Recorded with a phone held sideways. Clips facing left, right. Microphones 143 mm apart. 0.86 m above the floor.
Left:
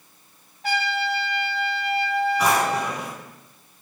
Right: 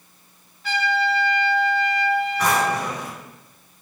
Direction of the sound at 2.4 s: 10° left (ahead or behind).